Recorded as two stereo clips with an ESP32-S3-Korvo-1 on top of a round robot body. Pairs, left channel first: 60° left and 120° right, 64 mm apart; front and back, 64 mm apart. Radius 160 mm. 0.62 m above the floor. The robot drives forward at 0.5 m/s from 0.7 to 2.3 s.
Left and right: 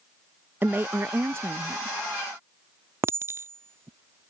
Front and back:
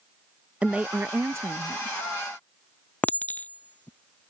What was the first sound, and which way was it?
A woman speaking, 125° right.